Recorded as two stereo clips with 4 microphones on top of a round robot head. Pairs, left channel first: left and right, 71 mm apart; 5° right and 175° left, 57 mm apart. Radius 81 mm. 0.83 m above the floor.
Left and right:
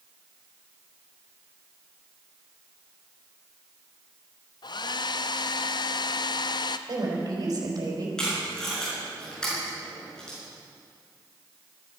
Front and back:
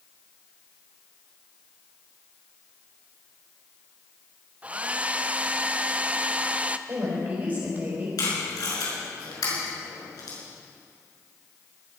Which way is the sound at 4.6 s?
110° left.